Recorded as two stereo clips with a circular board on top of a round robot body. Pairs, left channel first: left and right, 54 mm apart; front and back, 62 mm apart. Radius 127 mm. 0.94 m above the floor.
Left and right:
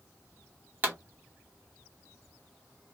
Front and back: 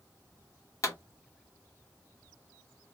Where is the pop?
35° right, 1.2 m.